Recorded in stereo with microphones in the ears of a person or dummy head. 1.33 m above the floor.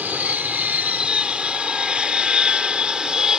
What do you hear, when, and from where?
0.0 s an aircraft: 5° right (ahead or behind); by 3.4 s centre (ahead or behind)